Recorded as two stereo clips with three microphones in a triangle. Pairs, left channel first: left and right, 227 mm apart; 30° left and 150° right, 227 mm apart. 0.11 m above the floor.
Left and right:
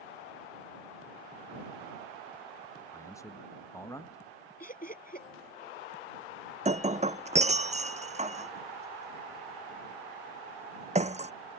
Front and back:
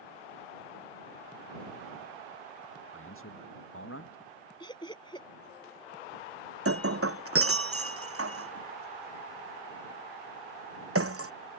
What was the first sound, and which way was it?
A man speaking, 15° left.